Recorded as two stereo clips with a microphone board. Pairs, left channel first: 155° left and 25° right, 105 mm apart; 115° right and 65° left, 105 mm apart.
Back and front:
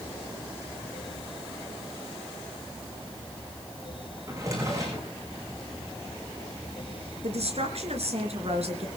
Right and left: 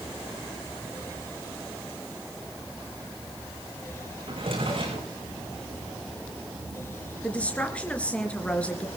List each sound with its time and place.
4.3 s a drawer: 35° left, 6.5 m
7.2 s a woman speaking: 35° right, 3.5 m